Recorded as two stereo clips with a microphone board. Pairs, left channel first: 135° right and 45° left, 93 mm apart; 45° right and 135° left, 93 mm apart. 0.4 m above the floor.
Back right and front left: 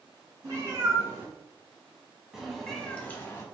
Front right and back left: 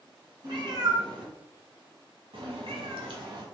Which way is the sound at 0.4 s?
100° left.